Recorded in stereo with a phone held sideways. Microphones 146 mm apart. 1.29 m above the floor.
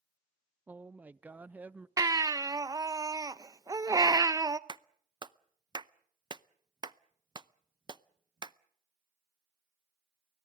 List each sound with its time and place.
0.7 s a woman speaking: 10° right (ahead or behind), 0.6 m
2.0 s a baby crying: 25° right (ahead or behind), 0.6 m
4.7 s a clap: 30° right (ahead or behind), 0.6 m